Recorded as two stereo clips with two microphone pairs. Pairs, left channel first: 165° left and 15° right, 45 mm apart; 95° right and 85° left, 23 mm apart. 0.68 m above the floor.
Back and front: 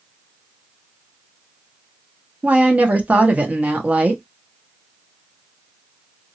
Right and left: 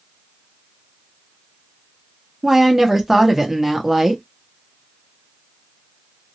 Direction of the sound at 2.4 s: 20° left.